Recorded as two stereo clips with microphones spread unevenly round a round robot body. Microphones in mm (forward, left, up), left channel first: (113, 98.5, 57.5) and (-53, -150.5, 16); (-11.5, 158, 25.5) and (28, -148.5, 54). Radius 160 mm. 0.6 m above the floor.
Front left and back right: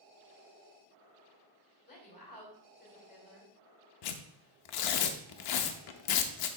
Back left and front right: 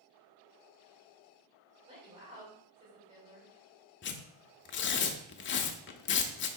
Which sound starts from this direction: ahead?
A woman speaking, at 1.9 s.